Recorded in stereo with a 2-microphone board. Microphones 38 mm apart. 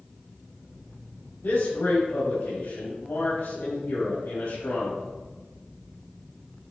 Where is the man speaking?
80° left, 3 m.